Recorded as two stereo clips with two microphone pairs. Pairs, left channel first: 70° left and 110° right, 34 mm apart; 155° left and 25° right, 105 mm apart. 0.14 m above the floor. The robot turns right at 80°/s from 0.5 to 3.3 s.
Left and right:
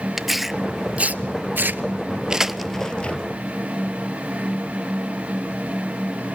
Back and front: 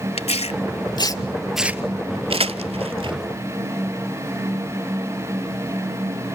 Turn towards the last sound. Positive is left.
turn(degrees=30)